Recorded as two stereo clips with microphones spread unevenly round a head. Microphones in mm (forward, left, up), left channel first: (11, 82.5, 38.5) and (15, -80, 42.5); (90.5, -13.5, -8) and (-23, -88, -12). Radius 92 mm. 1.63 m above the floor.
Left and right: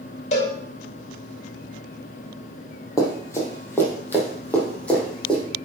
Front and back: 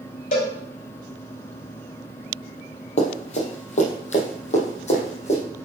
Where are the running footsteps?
25° left, 2.5 m; by 5.4 s 5° left, 4 m.